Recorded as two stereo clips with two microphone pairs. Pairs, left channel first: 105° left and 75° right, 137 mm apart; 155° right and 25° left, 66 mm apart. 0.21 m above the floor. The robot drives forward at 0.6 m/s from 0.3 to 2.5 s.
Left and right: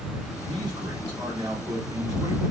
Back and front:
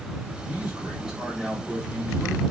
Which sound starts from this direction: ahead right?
A man speaking, at 0.5 s.